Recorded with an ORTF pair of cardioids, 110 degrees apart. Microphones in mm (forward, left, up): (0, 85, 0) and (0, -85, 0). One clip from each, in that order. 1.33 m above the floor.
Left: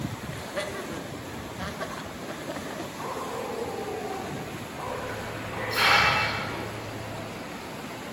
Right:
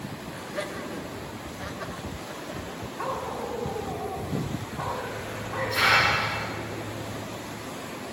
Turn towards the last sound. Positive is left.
turn(degrees=0)